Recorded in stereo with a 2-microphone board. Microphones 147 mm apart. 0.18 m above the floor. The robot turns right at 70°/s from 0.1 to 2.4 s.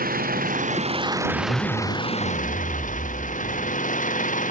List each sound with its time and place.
0.0 s an engine running: 100° right; by 4.5 s 60° left
1.3 s a zipper: 175° left; by 3.8 s 110° right